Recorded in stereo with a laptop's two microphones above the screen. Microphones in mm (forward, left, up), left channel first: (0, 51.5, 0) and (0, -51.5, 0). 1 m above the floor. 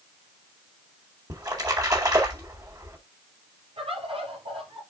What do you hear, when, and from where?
1.3 s a splash: 35° right (ahead or behind), 4 m
3.8 s a bird: 65° right (ahead or behind), 4.5 m